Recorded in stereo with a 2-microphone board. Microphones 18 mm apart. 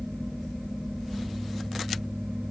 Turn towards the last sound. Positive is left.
No sound to turn to.